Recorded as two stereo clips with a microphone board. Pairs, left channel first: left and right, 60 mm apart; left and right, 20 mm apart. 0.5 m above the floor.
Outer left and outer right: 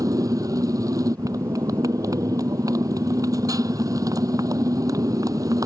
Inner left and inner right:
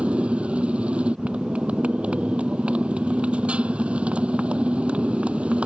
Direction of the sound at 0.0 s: 85° right.